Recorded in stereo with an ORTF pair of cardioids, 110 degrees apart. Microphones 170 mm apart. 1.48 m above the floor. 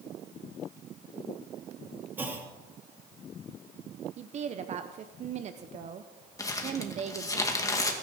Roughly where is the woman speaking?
Ahead right.